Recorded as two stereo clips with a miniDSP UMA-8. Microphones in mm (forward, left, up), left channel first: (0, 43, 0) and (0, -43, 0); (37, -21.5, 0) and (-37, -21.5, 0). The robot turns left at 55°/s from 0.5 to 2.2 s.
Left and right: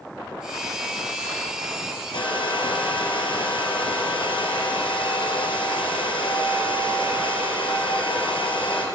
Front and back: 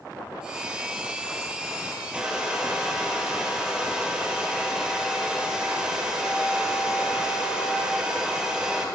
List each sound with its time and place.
2.1 s a hair dryer: 105° left, 1.5 m; by 8.8 s 100° left, 1.5 m